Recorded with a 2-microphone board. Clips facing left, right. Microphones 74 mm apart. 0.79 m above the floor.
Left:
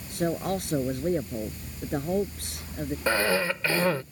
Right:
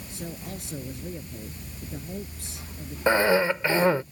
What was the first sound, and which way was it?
A man speaking, 60° left (ahead or behind).